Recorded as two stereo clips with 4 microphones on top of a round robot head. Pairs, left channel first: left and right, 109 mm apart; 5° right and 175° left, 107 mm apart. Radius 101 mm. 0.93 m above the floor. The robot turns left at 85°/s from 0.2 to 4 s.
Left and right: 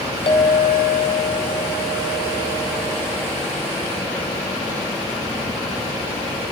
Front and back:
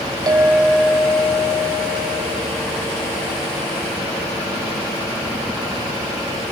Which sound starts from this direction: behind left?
A clink, at 0.3 s.